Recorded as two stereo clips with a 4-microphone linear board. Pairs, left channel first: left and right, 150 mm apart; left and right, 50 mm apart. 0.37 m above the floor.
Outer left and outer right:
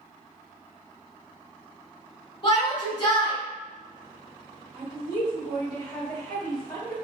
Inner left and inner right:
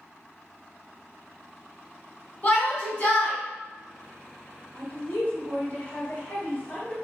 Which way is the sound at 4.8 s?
30° left (ahead or behind).